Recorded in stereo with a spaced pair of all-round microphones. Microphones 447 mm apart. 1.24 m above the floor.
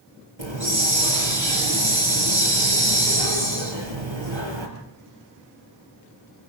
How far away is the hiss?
About 6 m.